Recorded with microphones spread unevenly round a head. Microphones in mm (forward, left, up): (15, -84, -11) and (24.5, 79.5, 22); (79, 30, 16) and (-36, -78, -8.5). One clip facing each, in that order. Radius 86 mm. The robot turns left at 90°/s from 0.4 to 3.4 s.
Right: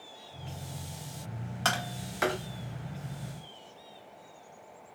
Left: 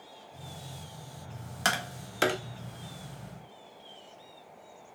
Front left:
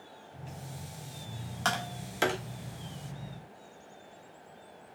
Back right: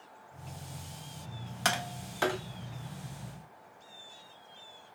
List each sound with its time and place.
1.6 s tapping: 140° left, 0.7 m; by 2.4 s 75° left, 0.7 m